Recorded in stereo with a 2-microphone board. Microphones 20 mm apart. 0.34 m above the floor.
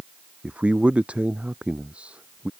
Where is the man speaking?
80° right.